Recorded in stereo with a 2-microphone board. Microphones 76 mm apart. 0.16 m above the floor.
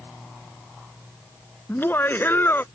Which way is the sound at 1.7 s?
30° left (ahead or behind).